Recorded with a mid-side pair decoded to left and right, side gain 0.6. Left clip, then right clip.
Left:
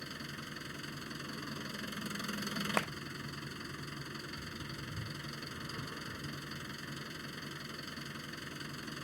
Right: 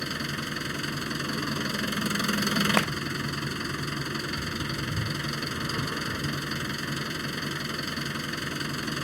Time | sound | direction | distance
0.0 | an engine running | 55° right | ?
2.8 | a clap | 40° right | ?